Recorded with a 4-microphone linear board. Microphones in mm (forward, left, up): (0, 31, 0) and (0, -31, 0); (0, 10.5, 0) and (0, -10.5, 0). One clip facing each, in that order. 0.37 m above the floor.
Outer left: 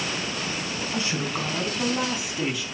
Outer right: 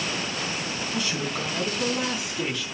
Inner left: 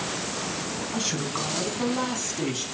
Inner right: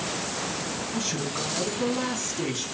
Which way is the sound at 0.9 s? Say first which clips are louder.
Outer left 1 dB, inner left 2 dB; 25° left (ahead or behind).